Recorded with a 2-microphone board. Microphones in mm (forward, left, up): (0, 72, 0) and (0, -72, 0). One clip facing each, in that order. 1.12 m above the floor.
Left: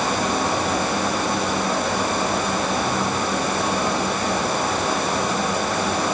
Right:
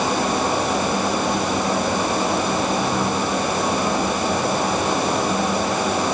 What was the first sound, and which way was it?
Only background noise.